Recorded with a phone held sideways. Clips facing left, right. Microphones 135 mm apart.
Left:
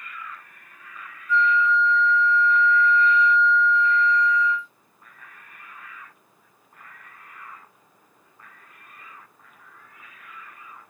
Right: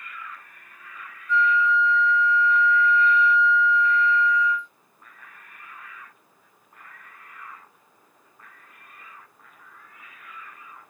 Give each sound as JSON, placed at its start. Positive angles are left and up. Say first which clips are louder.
{"t": 1.3, "sound": "a flute", "louder": "left 1 dB", "side_deg": 5, "distance_m": 0.6}